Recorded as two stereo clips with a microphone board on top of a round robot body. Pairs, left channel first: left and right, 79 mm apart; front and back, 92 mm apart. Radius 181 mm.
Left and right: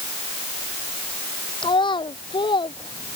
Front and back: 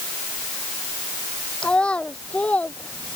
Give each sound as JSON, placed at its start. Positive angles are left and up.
{"t": 1.6, "sound": "a child speaking", "azimuth_deg": 80}